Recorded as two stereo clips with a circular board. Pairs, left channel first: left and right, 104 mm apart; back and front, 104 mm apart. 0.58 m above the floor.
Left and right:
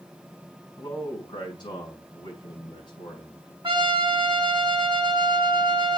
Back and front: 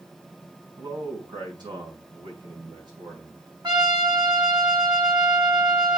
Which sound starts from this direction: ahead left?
A man speaking, at 0.8 s.